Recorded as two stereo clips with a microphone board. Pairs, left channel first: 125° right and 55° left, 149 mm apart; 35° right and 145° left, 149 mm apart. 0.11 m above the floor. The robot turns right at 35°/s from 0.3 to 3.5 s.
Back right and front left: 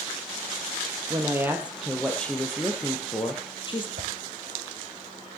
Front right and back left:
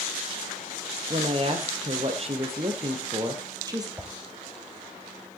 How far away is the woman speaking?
About 1.7 m.